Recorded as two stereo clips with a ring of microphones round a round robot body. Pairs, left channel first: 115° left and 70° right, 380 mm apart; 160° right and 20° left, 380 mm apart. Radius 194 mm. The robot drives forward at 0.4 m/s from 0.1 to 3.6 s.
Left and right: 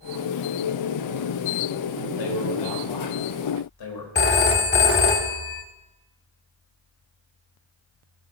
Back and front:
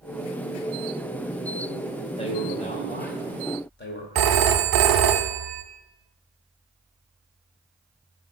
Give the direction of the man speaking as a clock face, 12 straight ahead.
8 o'clock.